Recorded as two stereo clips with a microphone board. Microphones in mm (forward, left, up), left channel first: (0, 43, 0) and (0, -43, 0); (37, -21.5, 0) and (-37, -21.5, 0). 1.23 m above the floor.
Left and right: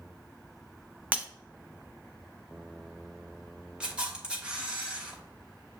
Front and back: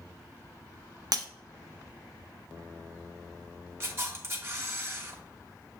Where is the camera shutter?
160° right, 1.0 m.